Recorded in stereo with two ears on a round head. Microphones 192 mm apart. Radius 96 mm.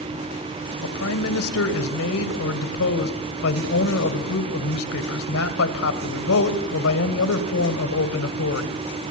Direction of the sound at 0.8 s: 70° left (ahead or behind).